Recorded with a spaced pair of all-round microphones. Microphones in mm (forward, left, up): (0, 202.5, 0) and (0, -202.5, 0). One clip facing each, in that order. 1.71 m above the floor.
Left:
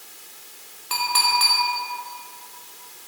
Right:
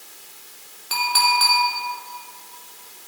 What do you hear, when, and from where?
0.9 s a clink: 10° left (ahead or behind), 3.5 m